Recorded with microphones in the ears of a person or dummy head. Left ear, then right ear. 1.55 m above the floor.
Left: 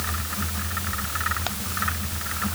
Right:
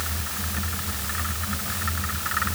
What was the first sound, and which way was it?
Only background noise.